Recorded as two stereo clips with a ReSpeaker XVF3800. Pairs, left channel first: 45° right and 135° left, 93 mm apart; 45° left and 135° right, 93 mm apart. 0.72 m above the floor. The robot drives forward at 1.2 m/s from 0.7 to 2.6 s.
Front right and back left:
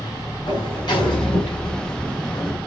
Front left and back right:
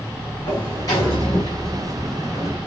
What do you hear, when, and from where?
0.5 s a sliding door: 5° right, 6 m; by 2.6 s 10° right, 4 m